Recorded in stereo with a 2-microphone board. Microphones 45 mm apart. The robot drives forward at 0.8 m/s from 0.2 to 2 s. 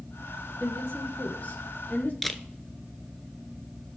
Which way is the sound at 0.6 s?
35° left (ahead or behind).